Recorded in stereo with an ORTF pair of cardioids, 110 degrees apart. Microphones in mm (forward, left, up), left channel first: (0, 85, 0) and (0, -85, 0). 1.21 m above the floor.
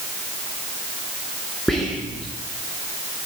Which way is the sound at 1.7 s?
Straight ahead.